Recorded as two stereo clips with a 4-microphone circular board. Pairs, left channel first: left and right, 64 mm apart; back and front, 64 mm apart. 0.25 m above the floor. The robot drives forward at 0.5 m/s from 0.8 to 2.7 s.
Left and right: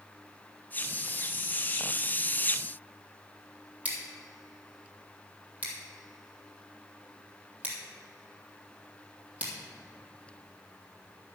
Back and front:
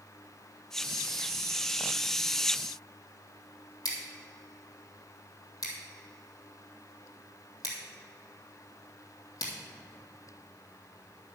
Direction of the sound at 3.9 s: 155° right.